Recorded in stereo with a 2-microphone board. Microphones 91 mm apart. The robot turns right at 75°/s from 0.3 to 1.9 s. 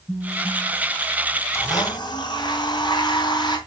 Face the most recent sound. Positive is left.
turn(degrees=55)  # may be behind; listen again after turning